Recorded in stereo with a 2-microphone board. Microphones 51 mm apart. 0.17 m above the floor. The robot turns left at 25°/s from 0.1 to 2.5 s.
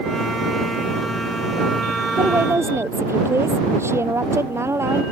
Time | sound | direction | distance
2.1 | a woman speaking | 65° right (ahead or behind) | ?